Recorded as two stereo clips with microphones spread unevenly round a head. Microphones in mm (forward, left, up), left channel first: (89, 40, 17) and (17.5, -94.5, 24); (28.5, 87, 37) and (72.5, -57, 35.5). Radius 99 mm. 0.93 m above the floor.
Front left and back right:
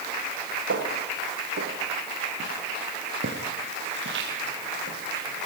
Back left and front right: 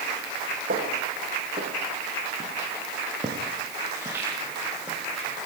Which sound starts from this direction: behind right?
Footsteps, at 0.7 s.